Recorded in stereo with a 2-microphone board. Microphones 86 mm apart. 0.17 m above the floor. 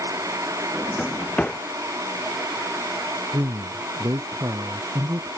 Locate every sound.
0.7 s a drawer: 15° left (ahead or behind)
3.3 s a man speaking: 40° right (ahead or behind)